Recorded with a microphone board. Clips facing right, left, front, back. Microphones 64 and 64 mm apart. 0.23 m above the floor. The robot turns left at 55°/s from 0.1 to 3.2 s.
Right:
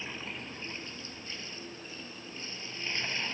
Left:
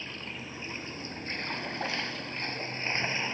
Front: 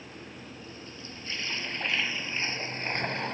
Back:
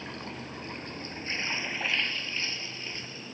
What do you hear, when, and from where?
0.0 s running water: 170° right; by 3.4 s 20° left